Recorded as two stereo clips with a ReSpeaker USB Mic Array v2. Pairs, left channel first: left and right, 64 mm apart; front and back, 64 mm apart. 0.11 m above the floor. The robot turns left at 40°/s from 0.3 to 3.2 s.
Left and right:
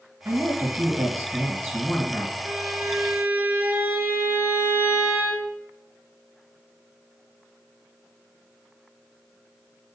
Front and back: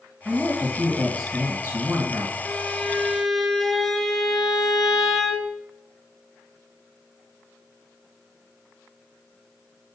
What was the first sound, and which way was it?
A woman speaking, 70° right.